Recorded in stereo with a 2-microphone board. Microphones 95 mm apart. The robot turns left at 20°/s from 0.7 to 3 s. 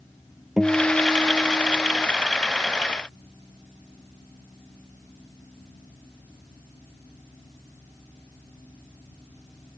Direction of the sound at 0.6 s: 5° right (ahead or behind).